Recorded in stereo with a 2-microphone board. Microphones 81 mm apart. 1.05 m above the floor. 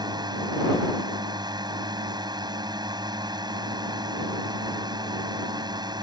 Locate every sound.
0.0 s a drone: 70° right (ahead or behind)